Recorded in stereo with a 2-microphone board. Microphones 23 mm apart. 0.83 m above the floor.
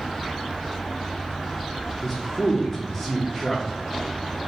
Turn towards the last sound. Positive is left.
turn(degrees=10)  # may be behind; listen again after turning